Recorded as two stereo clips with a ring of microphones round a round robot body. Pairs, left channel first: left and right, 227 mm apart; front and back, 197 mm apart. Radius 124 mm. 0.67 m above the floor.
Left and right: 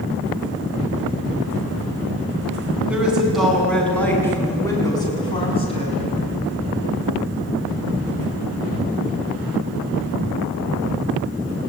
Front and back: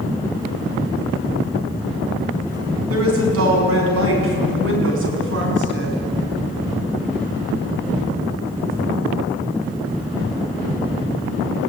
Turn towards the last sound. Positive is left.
turn(degrees=155)